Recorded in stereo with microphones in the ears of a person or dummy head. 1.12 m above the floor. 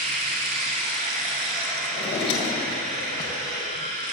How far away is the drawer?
About 2.5 m.